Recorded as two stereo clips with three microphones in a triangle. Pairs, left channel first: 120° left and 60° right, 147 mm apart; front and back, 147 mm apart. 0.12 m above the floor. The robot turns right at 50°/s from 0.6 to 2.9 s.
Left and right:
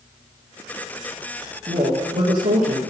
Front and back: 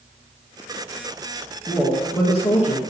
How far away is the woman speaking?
About 1.8 m.